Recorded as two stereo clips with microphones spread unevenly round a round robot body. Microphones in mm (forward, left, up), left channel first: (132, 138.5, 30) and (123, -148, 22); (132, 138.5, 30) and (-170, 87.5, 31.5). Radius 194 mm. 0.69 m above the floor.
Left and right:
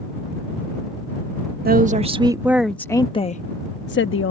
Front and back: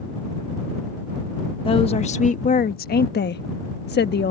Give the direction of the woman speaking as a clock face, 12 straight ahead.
2 o'clock.